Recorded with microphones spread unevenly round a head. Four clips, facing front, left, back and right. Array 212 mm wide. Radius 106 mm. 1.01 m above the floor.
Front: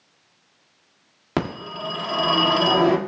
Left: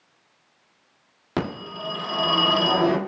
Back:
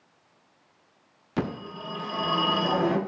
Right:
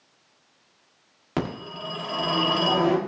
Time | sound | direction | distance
1.4 | a phone ringing | 5° left | 1.9 m